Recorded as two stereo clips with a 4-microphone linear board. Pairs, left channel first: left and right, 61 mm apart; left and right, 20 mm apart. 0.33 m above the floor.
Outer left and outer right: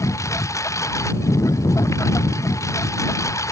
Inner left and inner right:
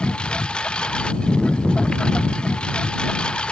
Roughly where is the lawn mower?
Left.